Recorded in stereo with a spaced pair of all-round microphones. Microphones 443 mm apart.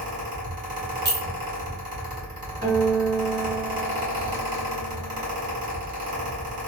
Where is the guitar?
20° right (ahead or behind), 1.6 m.